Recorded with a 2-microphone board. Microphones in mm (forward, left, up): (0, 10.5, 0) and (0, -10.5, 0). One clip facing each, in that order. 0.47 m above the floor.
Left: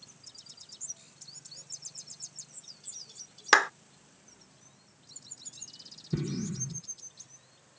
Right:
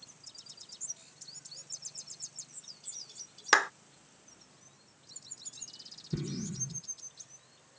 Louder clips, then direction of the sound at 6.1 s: Left 4 dB; 20° left (ahead or behind).